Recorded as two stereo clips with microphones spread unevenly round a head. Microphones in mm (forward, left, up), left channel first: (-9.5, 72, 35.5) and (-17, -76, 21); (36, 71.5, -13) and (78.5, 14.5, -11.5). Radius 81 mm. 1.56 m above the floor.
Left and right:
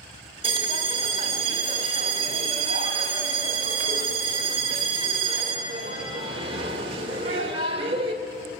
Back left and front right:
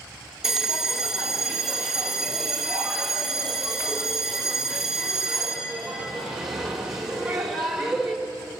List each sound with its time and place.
0.4 s a bell: 135° right, 1.5 m